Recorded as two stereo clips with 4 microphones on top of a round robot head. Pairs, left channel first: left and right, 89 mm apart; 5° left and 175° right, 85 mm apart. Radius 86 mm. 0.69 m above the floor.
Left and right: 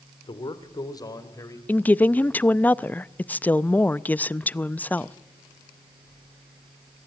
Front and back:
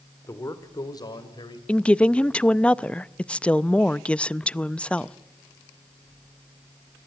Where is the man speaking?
60° left, 2.5 m; by 1.6 s 35° left, 4 m.